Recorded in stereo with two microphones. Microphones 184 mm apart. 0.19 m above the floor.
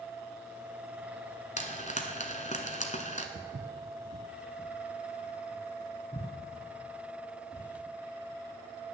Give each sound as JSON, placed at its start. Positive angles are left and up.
{"t": 1.6, "sound": "frying", "side_deg": 40, "distance_m": 1.3}
{"t": 3.4, "sound": "footsteps", "side_deg": -80, "distance_m": 1.3}